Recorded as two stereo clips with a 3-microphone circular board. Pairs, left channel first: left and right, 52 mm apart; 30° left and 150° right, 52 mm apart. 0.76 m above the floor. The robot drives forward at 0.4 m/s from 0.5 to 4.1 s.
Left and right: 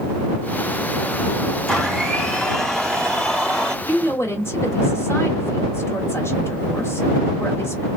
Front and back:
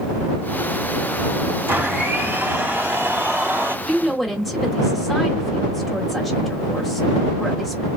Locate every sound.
1.7 s a blender: 170° left, 2 m
3.9 s a woman speaking: 120° left, 1.9 m